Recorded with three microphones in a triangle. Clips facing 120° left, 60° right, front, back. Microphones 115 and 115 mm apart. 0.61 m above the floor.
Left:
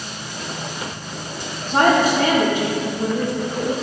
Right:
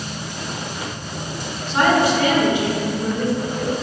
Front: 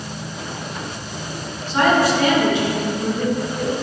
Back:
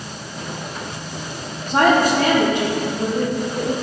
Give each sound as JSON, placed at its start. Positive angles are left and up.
{"t": 1.7, "sound": "a woman speaking", "azimuth_deg": 155, "distance_m": 1.2}